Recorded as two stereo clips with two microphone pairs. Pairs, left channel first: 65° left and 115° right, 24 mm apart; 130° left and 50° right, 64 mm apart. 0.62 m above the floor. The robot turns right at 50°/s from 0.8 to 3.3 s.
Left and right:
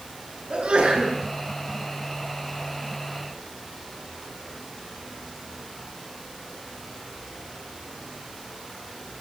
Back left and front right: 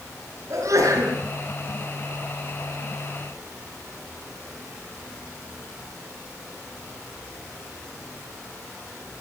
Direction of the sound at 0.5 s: 80° right.